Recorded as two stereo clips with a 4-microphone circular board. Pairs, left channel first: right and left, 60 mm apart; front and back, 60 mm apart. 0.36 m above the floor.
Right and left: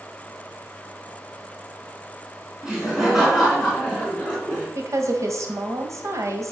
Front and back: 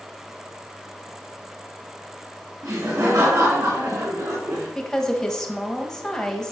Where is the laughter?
170° left, 3.5 m; by 4.7 s 170° right, 4.5 m.